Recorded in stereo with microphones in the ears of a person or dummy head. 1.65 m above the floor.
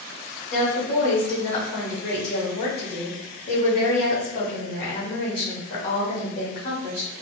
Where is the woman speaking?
50° left (ahead or behind), 1.2 m.